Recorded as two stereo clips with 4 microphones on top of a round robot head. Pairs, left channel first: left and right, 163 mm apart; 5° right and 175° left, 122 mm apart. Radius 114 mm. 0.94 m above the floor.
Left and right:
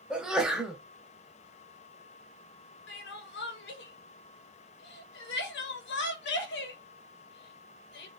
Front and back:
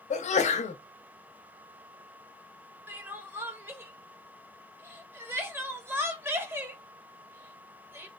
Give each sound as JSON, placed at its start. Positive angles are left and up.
{"t": 0.1, "sound": "a sneeze", "azimuth_deg": -5, "distance_m": 0.5}
{"t": 2.9, "sound": "crying", "azimuth_deg": 100, "distance_m": 0.7}